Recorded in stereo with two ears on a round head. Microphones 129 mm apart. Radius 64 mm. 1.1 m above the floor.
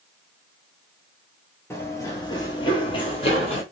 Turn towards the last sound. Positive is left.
turn(degrees=45)  # may be behind; listen again after turning